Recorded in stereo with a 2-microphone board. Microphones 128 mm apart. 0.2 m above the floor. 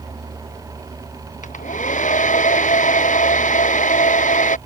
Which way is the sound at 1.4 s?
75° left (ahead or behind).